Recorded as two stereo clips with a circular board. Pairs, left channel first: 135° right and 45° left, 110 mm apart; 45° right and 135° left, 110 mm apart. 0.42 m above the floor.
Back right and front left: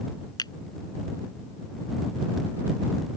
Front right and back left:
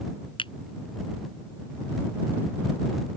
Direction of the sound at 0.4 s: 85° right.